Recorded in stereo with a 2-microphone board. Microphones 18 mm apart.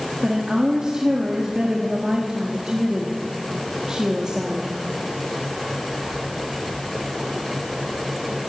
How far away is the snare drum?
I don't hear a snare drum.